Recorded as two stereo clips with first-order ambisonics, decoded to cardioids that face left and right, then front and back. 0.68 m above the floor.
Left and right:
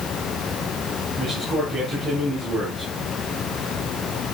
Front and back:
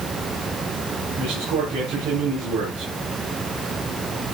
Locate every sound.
1.2 s a man speaking: straight behind, 7.5 m